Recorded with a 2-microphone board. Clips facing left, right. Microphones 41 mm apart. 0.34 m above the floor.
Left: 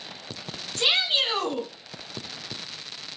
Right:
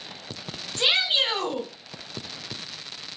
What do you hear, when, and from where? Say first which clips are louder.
0.8 s a shout: right 1 dB; 25° right (ahead or behind), 2.5 m